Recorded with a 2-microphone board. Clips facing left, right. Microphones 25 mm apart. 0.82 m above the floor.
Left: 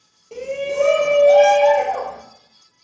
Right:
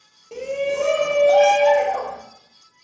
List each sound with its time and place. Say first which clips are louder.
0.3 s a shout: even; 5° right (ahead or behind), 0.5 m; by 2.2 s 40° left (ahead or behind), 1.0 m